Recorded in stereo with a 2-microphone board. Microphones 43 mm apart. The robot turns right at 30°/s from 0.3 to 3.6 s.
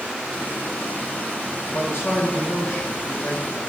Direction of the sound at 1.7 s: 65° left.